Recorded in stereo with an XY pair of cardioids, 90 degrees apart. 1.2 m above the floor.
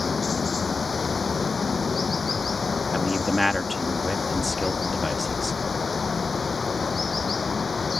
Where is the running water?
40° left.